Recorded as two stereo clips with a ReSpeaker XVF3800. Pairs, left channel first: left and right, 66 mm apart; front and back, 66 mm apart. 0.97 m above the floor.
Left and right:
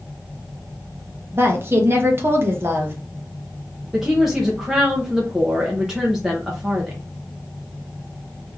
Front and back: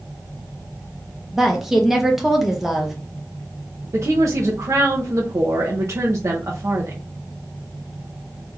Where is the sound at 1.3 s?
95° right, 0.8 m.